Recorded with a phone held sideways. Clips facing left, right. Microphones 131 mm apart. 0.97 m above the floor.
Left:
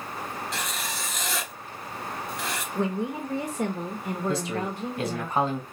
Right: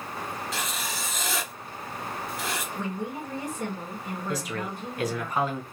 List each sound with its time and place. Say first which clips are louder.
0.5 s writing: even; centre (ahead or behind), 0.7 m
2.8 s a woman speaking: left 4 dB; 55° left (ahead or behind), 0.8 m
4.3 s a man speaking: left 2 dB; 30° left (ahead or behind), 1.1 m